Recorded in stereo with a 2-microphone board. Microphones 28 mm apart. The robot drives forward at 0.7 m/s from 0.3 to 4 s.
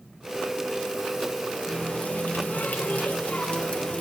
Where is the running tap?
45° left (ahead or behind), 1.1 m.